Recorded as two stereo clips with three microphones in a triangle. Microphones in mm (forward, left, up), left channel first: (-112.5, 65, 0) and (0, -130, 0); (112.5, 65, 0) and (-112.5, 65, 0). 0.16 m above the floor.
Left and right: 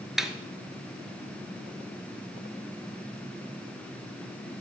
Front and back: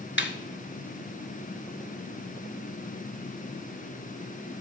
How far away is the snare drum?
About 0.9 m.